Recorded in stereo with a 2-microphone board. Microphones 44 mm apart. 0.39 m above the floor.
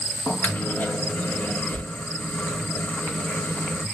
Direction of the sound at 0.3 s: 45° left (ahead or behind).